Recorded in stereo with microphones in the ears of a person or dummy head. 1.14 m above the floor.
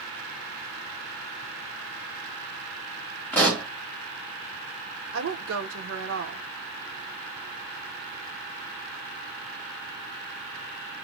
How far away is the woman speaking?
About 0.7 m.